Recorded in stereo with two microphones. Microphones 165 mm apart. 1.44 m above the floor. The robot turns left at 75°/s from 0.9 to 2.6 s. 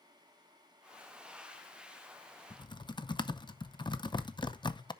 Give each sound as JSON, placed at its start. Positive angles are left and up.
{"t": 2.5, "sound": "typing on a keyboard", "side_deg": 20, "distance_m": 0.6}